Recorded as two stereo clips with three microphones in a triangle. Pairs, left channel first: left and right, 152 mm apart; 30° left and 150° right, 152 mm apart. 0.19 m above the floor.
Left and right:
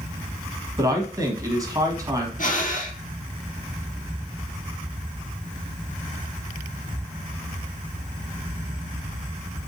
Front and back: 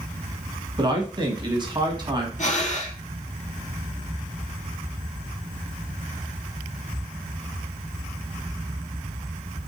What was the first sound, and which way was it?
A man speaking, 130° right.